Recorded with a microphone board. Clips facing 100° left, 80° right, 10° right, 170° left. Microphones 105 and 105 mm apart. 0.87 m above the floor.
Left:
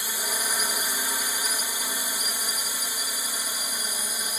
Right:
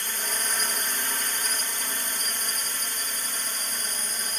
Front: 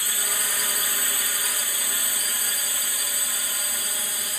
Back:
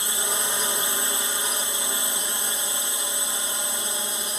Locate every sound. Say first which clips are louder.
0.0 s a drone: left 1 dB, back 3 dB; 165° left